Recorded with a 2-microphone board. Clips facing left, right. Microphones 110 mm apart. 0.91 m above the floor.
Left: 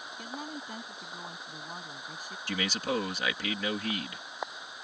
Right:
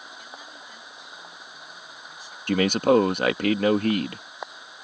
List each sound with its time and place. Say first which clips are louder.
0.2 s a woman speaking: left 4 dB; 50° left (ahead or behind)
2.5 s a man speaking: right 13 dB; 55° right (ahead or behind)